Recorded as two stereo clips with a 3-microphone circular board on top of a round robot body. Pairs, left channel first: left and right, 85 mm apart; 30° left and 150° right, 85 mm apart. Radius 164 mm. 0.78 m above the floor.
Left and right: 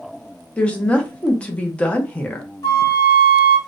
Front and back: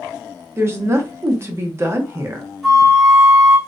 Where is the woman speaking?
160° left, 0.7 m.